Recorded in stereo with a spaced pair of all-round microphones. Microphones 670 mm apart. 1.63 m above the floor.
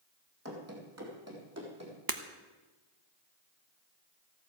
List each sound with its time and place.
0.5 s running footsteps: 20° right (ahead or behind), 3 m
2.1 s breaking glass: 30° right (ahead or behind), 0.9 m